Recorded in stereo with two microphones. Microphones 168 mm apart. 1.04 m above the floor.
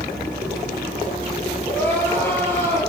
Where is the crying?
10° left (ahead or behind), 9 m.